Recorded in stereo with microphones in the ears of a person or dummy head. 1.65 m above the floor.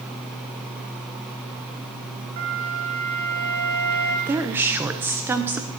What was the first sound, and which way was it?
A flute, 55° right (ahead or behind).